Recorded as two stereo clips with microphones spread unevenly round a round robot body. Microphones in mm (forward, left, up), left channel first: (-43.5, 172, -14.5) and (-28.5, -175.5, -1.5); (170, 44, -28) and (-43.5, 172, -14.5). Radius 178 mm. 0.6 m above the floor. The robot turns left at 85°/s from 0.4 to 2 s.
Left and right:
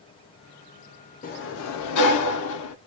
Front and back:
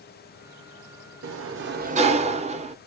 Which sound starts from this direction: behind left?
A sliding door, at 1.2 s.